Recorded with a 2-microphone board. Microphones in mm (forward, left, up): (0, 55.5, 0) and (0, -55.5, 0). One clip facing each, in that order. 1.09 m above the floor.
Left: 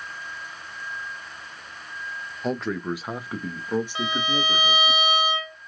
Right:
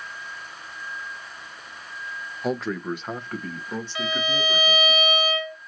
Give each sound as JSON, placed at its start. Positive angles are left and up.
{"t": 2.4, "sound": "a man speaking", "side_deg": -5, "distance_m": 0.5}
{"t": 4.0, "sound": "a violin", "side_deg": 30, "distance_m": 2.0}